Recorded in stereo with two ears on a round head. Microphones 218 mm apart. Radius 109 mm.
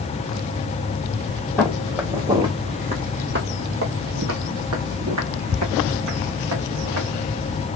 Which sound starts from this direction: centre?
Footsteps, at 1.6 s.